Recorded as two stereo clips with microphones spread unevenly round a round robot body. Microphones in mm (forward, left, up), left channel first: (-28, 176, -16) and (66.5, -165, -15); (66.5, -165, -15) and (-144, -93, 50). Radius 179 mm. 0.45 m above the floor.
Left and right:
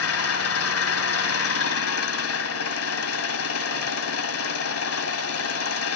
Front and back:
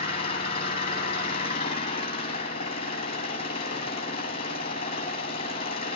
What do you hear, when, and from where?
0.0 s an engine running: 50° left, 1.5 m